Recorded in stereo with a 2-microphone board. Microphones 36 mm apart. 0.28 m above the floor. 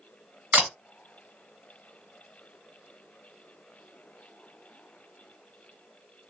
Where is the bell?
No bell in this recording.